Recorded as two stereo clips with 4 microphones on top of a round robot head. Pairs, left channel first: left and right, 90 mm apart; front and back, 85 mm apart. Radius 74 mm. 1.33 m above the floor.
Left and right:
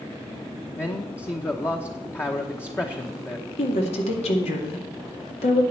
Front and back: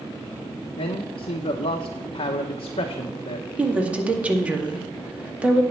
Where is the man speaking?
25° left, 0.9 m.